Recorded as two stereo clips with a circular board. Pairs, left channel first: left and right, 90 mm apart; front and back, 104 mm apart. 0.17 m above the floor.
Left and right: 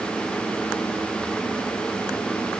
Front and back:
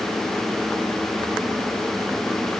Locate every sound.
Only background noise.